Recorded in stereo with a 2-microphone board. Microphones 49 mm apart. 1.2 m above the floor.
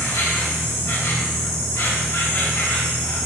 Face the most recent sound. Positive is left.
turn(degrees=55)  # may be behind; listen again after turning